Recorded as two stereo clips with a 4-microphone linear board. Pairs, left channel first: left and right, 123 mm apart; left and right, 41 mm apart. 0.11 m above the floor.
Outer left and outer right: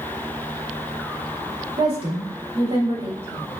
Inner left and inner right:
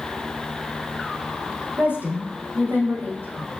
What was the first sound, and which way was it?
A woman speaking, 50° right (ahead or behind).